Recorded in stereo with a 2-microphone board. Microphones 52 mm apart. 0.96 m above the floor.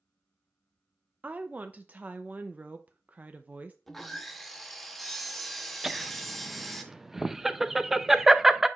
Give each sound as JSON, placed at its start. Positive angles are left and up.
{"t": 1.2, "sound": "a woman speaking", "side_deg": -30, "distance_m": 0.5}
{"t": 3.9, "sound": "sawing", "side_deg": 0, "distance_m": 0.9}
{"t": 5.8, "sound": "laughter", "side_deg": -5, "distance_m": 0.5}